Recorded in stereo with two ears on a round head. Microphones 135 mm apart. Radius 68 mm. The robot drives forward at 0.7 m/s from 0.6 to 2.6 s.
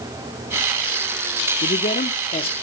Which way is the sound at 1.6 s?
55° left (ahead or behind).